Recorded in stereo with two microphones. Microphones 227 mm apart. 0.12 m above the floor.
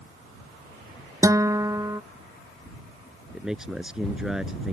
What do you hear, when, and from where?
1.2 s a guitar: 15° right (ahead or behind)
3.3 s a man speaking: centre (ahead or behind)